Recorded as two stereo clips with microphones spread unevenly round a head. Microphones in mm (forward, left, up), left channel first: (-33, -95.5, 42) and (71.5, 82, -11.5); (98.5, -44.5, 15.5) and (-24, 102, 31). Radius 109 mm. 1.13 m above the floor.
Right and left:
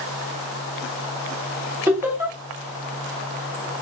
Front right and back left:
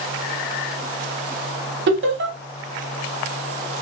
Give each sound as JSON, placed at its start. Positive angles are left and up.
{"t": 1.9, "sound": "laughter", "azimuth_deg": 130, "distance_m": 1.2}